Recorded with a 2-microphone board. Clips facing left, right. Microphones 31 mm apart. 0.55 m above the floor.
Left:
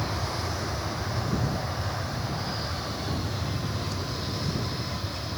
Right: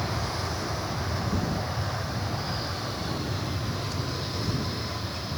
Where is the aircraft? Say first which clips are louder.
Even; 5° right (ahead or behind); by 5.4 s 15° right (ahead or behind).